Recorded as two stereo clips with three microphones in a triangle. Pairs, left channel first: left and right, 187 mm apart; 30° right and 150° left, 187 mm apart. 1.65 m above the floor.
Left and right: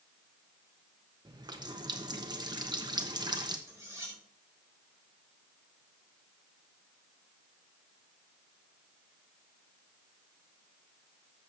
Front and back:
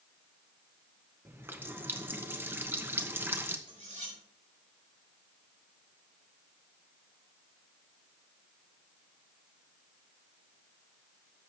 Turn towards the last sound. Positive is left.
turn(degrees=-165)